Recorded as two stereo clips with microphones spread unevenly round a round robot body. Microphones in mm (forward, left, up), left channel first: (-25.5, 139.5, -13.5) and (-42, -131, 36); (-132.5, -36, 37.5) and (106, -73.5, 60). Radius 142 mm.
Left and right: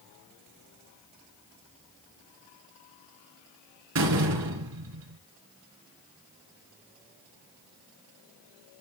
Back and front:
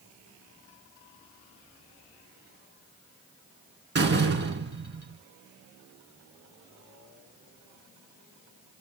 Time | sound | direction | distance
4.0 | a door slam | 55° right | 3.5 m